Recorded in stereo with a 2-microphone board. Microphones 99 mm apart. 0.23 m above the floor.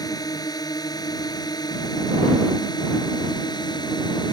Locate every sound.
0.0 s a drone: 40° left (ahead or behind); by 4.3 s 45° left (ahead or behind)